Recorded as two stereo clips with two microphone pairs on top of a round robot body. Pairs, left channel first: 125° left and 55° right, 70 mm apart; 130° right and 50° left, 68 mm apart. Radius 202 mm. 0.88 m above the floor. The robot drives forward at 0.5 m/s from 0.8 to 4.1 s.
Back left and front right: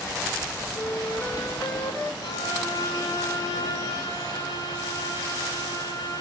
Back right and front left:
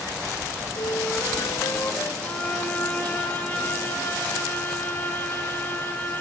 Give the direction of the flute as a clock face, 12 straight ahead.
6 o'clock.